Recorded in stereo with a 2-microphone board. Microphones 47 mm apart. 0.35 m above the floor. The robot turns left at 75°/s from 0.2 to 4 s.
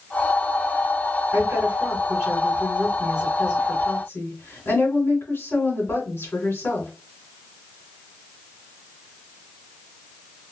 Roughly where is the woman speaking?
Right.